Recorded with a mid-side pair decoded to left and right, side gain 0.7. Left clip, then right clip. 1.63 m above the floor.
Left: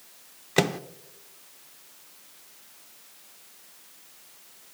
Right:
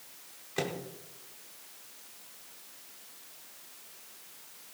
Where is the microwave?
55° left, 0.6 m.